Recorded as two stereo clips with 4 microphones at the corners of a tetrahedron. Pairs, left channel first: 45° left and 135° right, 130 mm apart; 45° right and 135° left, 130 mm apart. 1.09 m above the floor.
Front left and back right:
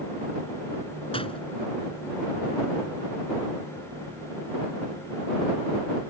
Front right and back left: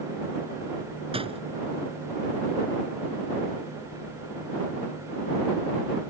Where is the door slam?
90° left.